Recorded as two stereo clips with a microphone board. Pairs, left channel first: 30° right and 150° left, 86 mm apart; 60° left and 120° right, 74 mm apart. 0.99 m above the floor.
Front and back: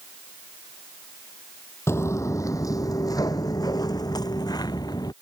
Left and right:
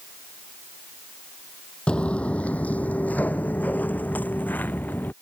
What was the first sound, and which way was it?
Footsteps, 5° right.